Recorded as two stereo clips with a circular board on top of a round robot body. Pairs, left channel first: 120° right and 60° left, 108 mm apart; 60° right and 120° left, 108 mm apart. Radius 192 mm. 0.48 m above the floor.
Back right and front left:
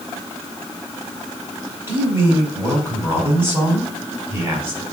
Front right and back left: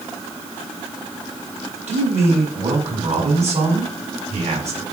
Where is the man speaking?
130° left, 4 m.